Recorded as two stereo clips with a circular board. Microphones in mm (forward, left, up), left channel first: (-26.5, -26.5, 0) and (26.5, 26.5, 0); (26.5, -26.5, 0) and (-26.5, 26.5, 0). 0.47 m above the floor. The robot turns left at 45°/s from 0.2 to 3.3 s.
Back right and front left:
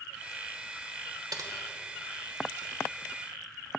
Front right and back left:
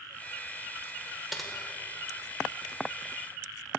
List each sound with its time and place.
1.3 s typing on a keyboard: 45° left, 1.0 m; by 1.5 s 35° left, 1.0 m